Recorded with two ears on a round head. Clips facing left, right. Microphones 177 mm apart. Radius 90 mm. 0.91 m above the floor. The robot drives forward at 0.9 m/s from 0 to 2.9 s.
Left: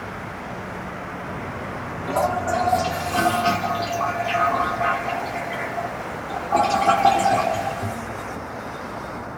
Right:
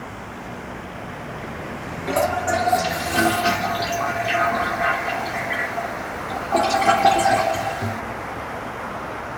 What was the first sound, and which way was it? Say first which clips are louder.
A toilet flushing: right 1 dB; 25° right (ahead or behind).